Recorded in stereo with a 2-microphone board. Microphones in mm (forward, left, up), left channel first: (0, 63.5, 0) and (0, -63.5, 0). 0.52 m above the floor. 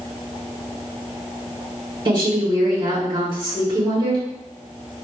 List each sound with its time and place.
2.0 s a woman speaking: 40° right (ahead or behind), 1.8 m